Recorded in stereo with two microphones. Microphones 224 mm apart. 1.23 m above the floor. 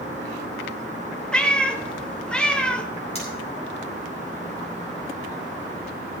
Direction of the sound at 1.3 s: 5° left (ahead or behind).